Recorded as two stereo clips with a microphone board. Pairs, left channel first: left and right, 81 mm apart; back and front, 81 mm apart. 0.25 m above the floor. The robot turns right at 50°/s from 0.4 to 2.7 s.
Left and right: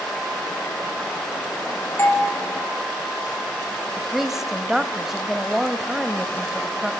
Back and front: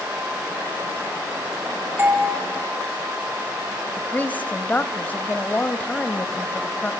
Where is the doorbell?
50° left, 3 m; by 2.3 s 65° left, 3 m.